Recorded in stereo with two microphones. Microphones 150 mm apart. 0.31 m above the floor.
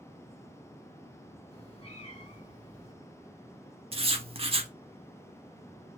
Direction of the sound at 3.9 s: 40° right (ahead or behind).